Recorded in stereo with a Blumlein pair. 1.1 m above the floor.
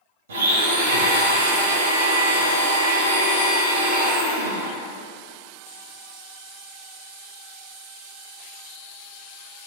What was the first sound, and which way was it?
A blender, 60° right.